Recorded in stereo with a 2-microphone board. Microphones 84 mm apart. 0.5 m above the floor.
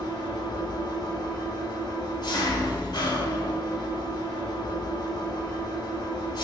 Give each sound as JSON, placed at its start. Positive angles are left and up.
{"t": 0.0, "sound": "an engine running", "side_deg": 60, "distance_m": 0.9}